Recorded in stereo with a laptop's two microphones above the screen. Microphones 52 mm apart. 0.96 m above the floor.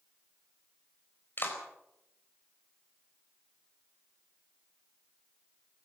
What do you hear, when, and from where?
1.4 s a clap: 45° left (ahead or behind), 4 m